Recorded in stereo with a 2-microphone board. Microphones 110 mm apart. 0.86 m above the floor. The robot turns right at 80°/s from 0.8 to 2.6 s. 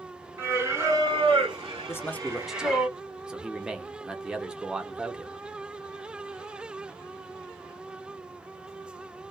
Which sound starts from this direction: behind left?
A man speaking, at 1.9 s.